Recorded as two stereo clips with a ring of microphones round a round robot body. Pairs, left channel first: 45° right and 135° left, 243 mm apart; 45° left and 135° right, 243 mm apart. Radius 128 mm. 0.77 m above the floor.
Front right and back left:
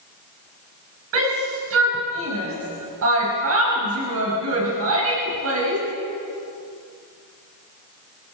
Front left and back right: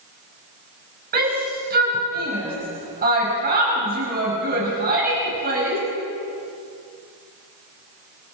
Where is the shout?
170° left, 6 m.